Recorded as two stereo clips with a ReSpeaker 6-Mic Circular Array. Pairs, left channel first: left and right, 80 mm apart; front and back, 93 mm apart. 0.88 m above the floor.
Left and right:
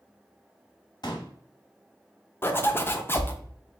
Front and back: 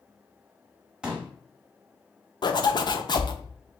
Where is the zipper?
30° left, 0.6 m.